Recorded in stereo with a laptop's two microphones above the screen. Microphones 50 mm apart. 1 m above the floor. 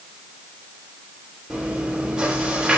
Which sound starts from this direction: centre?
Chewing, at 1.5 s.